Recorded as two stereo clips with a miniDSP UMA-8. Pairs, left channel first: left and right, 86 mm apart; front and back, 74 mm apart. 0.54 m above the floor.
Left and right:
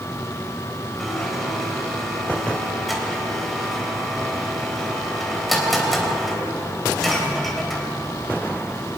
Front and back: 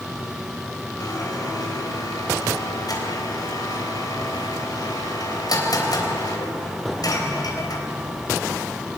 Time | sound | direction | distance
1.0 | a blender | straight ahead | 3.5 m